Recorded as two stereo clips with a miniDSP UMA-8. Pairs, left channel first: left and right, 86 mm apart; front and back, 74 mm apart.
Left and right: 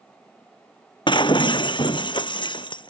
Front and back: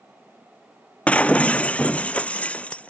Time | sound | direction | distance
1.1 | breaking glass | 75° left | ?